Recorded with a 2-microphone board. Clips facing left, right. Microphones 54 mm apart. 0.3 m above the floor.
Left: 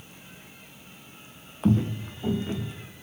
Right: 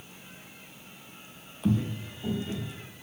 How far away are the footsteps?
About 0.7 m.